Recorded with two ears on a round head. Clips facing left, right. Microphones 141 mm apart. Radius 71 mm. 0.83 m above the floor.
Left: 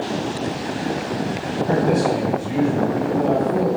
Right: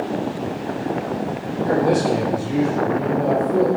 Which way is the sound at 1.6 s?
55° right (ahead or behind).